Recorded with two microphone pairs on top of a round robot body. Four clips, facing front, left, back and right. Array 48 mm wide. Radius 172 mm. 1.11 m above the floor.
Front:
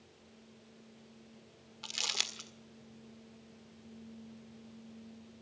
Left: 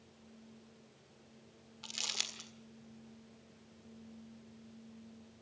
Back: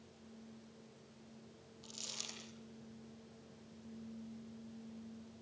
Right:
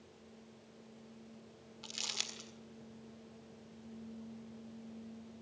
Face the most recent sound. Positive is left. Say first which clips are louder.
# left 2 dB, front 13 dB
turn(degrees=5)